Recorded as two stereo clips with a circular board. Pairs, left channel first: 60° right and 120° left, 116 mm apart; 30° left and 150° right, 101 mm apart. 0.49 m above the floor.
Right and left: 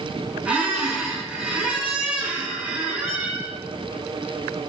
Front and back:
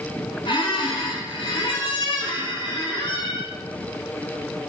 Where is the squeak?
40° left, 0.7 m.